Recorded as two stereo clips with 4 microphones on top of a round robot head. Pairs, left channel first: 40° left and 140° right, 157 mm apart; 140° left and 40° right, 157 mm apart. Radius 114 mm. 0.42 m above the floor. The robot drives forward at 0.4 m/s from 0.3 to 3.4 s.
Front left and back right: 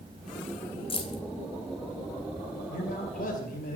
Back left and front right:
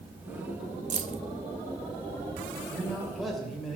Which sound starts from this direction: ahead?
Keys jangling, at 0.9 s.